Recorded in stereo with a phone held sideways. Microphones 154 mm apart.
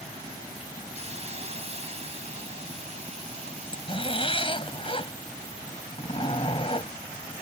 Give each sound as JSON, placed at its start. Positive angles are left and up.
{"t": 0.9, "sound": "a hiss", "side_deg": -45}
{"t": 3.5, "sound": "a zipper", "side_deg": 35}